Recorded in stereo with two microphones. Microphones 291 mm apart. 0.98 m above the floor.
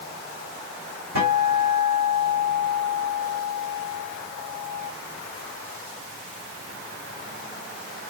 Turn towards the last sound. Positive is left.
turn(degrees=-80)